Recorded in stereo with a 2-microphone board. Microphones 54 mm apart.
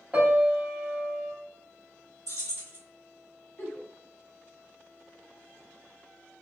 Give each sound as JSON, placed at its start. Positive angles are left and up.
{"t": 0.1, "sound": "a piano", "side_deg": -25, "distance_m": 0.9}
{"t": 2.3, "sound": "keys jangling", "side_deg": 70, "distance_m": 1.4}
{"t": 3.6, "sound": "a giggle", "side_deg": 50, "distance_m": 1.7}